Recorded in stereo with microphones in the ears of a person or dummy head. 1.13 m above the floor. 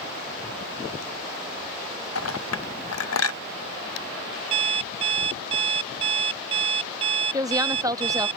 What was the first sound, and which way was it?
A clink, 85° left.